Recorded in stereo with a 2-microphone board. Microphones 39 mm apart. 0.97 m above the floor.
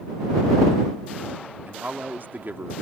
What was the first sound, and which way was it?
A man speaking, 55° right (ahead or behind).